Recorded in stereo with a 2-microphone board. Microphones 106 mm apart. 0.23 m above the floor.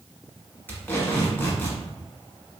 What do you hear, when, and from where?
0.7 s tape being pulled: 20° left (ahead or behind), 1.0 m